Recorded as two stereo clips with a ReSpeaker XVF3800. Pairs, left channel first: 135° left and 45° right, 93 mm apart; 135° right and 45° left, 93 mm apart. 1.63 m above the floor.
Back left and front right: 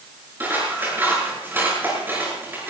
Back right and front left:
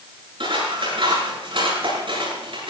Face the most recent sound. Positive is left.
turn(degrees=20)